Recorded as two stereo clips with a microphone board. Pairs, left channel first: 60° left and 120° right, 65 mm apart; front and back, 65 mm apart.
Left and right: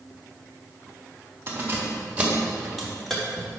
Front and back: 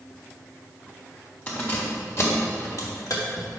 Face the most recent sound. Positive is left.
turn(degrees=-15)